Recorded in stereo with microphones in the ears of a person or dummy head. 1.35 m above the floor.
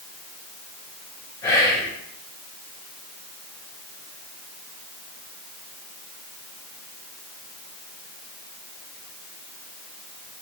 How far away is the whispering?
About 0.6 m.